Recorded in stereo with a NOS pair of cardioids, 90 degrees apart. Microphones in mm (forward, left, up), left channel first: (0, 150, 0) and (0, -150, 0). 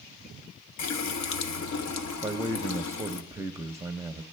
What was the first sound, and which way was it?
A running tap, 65° left.